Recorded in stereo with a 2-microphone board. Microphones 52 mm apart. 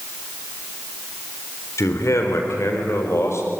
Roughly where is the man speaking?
Left.